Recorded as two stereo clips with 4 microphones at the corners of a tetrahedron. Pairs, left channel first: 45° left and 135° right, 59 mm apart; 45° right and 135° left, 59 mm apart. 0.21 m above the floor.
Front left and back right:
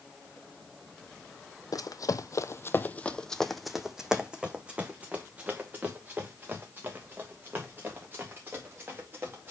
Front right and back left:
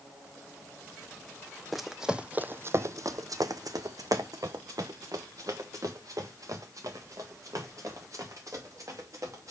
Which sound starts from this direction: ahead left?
Running footsteps, at 1.7 s.